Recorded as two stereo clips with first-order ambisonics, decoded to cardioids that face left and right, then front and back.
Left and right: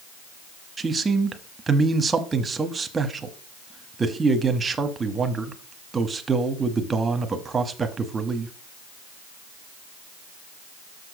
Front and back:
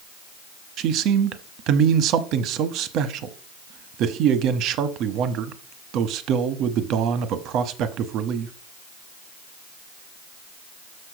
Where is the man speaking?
160° right, 0.8 m.